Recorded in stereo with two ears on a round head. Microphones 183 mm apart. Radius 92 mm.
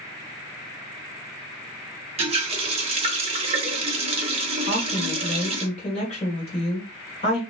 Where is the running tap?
30° right (ahead or behind), 0.7 m.